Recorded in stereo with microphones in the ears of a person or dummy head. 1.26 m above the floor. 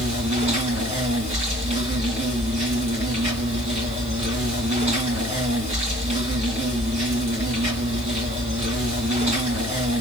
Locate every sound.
0.0 s an insect: 30° right (ahead or behind), 2.5 m